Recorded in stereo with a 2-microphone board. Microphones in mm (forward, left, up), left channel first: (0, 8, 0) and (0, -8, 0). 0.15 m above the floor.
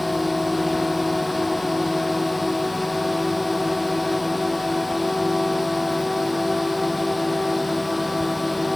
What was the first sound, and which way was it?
A drone, 15° right (ahead or behind).